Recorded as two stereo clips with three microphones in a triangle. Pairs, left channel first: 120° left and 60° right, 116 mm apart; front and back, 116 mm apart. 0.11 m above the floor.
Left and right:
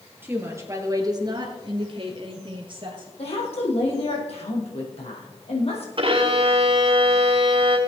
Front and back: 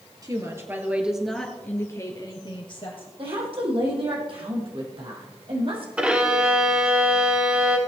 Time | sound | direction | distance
0.2 | a woman speaking | 130° right | 2.5 m
3.2 | a woman speaking | 145° left | 4 m
6.0 | a violin | 100° right | 1.9 m